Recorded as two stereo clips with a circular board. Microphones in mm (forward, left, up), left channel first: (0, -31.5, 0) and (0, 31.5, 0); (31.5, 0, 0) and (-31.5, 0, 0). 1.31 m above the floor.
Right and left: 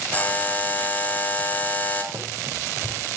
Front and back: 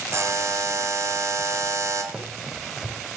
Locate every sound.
0.1 s a buzzer: 150° right, 1.9 m
2.1 s running footsteps: 100° left, 3 m